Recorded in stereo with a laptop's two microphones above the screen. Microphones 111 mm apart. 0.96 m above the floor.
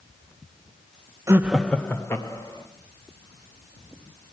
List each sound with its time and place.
1.3 s laughter: 25° right (ahead or behind), 0.5 m; by 2.7 s 30° left (ahead or behind), 1.8 m